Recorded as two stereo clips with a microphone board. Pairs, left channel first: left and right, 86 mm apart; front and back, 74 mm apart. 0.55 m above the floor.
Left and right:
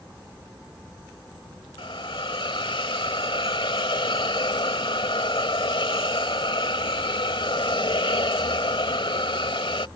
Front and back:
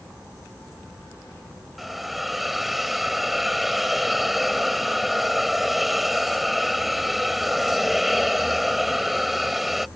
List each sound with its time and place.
1.8 s a hiss: 90° left